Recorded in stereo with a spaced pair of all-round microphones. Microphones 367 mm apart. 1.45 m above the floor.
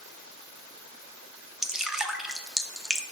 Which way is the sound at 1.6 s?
Centre (ahead or behind).